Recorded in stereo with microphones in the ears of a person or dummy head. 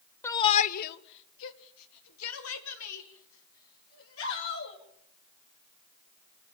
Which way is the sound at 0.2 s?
15° left (ahead or behind).